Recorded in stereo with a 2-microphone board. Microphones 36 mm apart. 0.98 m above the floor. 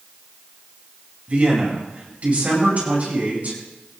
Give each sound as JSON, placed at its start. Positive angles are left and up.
{"t": 1.3, "sound": "a man speaking", "side_deg": -40, "distance_m": 8.0}